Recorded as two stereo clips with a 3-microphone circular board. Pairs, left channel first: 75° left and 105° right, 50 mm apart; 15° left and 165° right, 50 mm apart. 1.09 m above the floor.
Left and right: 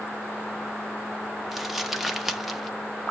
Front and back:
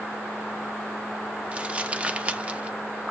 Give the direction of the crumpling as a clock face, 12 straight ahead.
6 o'clock.